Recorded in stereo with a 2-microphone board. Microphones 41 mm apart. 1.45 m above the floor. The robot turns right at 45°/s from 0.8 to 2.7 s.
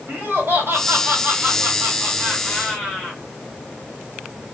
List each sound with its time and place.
0.1 s laughter: 105° right, 2 m; by 3.2 s 15° right, 2 m